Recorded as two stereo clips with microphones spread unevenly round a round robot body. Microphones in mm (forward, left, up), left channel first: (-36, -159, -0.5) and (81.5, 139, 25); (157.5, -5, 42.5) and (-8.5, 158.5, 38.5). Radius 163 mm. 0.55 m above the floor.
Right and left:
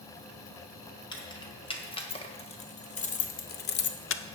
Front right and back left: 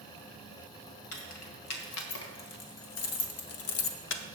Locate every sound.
1.1 s keys jangling: 35° right, 2 m; by 4.2 s 75° right, 0.6 m